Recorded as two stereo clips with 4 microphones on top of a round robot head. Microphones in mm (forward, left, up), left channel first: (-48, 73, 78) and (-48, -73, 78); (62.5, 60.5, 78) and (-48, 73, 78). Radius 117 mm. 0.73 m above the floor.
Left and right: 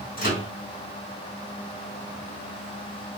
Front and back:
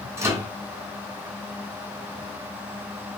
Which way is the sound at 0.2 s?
110° left.